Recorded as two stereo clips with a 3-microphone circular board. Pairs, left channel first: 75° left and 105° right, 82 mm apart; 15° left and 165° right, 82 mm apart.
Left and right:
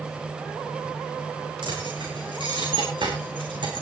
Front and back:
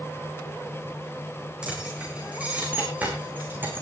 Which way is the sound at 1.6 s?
90° right.